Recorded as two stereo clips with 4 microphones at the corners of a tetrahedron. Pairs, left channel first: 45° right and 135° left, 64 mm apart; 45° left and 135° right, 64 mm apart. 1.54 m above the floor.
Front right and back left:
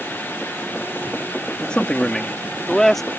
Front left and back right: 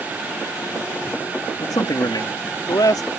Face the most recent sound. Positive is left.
turn(degrees=40)